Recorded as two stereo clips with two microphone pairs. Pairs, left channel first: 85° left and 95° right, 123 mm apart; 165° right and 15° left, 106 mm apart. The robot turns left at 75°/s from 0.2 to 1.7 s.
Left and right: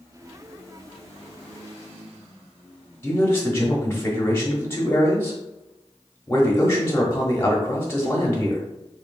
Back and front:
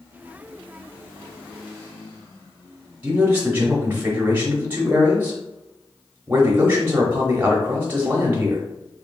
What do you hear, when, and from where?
3.0 s a man speaking: 55° left, 1.0 m